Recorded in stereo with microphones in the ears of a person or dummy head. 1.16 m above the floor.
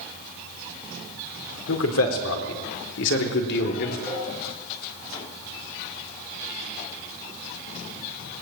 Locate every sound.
1.7 s a man speaking: 85° left, 4 m; by 4.0 s 55° left (ahead or behind), 3 m
4.1 s a cowbell: 10° left (ahead or behind), 7.5 m